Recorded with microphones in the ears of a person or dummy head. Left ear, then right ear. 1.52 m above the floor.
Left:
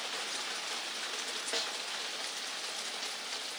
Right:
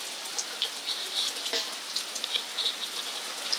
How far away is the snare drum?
About 0.5 m.